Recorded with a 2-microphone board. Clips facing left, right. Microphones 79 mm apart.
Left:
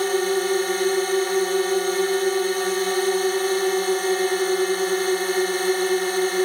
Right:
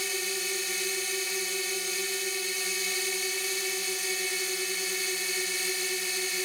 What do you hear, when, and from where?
0.0 s a drone: 55° left (ahead or behind)